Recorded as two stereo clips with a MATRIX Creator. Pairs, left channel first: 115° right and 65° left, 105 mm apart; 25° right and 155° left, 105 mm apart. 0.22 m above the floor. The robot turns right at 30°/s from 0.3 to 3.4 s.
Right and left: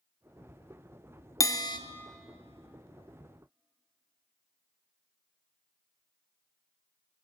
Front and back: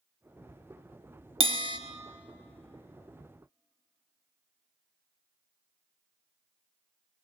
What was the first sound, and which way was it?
A bell, 170° right.